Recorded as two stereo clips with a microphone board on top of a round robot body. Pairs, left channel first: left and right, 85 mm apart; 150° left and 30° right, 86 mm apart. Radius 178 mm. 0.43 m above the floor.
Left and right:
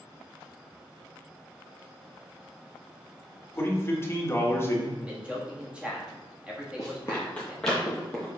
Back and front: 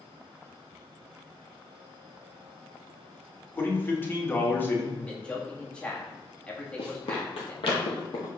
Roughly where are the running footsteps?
Behind left.